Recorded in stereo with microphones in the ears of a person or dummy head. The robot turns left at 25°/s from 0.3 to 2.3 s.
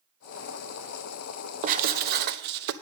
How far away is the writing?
About 0.6 m.